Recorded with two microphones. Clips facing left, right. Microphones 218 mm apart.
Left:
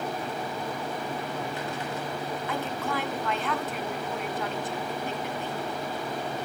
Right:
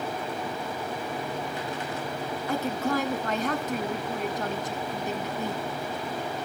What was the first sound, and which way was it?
A woman speaking, 45° right (ahead or behind).